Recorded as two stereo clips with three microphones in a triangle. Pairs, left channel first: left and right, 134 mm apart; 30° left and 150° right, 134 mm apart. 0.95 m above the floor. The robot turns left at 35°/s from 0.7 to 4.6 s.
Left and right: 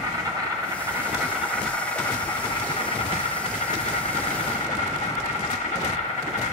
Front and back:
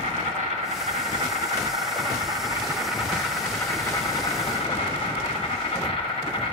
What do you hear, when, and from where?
0.0 s an insect: 150° right, 1.4 m; by 6.5 s 70° left, 1.4 m